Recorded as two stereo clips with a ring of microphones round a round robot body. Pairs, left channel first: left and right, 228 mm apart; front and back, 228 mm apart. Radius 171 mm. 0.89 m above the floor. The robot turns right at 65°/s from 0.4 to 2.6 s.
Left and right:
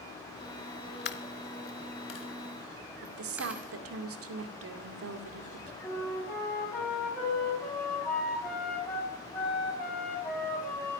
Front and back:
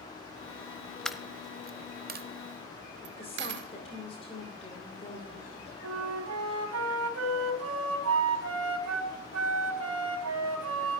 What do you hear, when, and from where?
1.1 s a dropped coin: 85° left, 0.9 m; by 3.7 s 175° right, 0.9 m
3.0 s a woman speaking: 70° right, 2.5 m
5.8 s a flute: 175° left, 4 m